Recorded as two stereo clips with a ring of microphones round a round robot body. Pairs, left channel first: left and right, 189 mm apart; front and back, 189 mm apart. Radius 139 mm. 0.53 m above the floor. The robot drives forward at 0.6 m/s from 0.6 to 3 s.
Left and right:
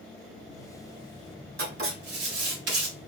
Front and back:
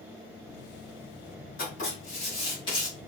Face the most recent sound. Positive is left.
turn(degrees=-80)